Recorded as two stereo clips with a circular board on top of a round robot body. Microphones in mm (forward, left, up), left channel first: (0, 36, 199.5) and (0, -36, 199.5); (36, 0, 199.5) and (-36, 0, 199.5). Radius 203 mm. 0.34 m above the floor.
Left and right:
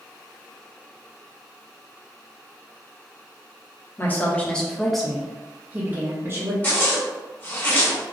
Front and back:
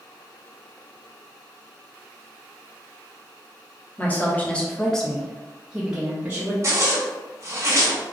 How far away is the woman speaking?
About 1.4 m.